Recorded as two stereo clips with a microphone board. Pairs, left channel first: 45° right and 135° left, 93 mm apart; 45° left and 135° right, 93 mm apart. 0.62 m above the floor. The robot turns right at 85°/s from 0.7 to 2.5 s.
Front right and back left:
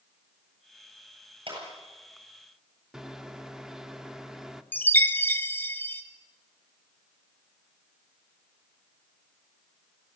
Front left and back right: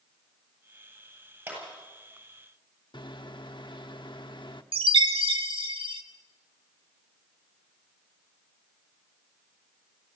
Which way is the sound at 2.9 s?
50° left.